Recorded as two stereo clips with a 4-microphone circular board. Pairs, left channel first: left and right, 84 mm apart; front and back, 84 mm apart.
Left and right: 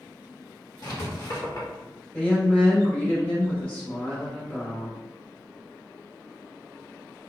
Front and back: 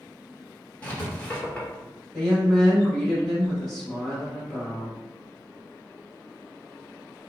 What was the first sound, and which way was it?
Writing, 70° left.